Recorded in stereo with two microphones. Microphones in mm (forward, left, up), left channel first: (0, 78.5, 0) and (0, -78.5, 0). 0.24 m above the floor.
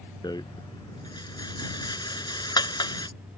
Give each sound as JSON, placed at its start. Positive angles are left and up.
{"t": 0.2, "sound": "a rattle", "side_deg": 25}